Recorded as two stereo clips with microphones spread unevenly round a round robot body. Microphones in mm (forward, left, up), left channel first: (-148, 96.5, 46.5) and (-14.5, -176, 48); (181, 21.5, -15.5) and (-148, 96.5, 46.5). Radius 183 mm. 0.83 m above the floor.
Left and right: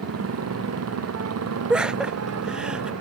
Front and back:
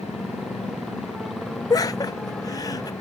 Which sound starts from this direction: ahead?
Laughter, at 1.7 s.